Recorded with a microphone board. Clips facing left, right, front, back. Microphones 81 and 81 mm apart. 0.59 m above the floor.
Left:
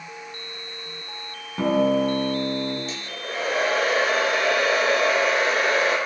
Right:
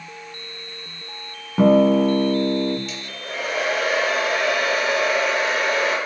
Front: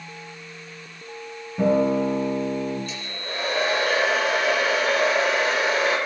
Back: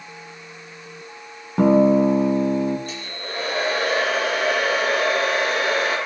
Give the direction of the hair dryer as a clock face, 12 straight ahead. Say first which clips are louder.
Even, back 1 dB; 7 o'clock.